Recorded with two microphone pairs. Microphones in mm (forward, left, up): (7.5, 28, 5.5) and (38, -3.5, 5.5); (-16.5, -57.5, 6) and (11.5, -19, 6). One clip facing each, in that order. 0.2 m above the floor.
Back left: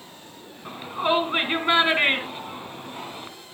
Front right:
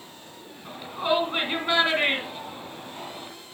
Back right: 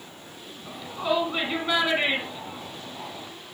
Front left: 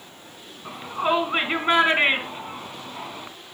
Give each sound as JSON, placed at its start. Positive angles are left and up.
{"t": 0.7, "sound": "a shout", "azimuth_deg": 80, "distance_m": 2.0}